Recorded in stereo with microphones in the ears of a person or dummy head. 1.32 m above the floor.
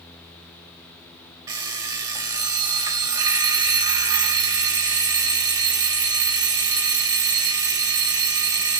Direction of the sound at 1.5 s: 15° right (ahead or behind).